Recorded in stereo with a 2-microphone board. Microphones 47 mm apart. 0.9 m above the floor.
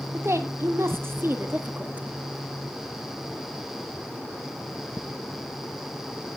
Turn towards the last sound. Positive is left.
turn(degrees=-25)  # may be behind; listen again after turning